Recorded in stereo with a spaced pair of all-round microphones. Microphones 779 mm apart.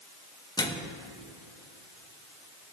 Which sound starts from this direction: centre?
A microwave, at 0.6 s.